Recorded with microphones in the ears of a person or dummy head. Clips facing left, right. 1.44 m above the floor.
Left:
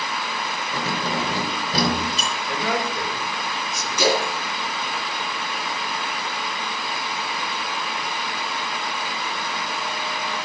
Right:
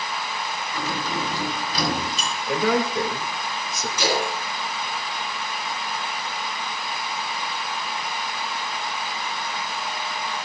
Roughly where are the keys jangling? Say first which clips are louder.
Left 3 dB; left.